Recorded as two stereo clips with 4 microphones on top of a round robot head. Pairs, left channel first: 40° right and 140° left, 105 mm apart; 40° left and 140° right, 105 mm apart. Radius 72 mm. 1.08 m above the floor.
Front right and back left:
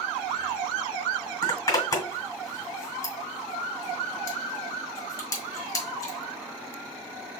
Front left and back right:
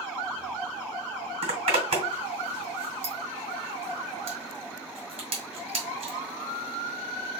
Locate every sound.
1.4 s a zipper: 105° right, 2 m